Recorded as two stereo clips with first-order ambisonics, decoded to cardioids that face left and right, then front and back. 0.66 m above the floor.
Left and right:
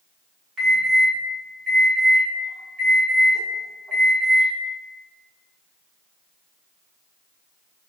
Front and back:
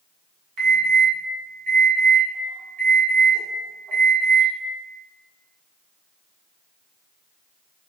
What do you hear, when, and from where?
0.6 s an alarm: 150° right, 1.3 m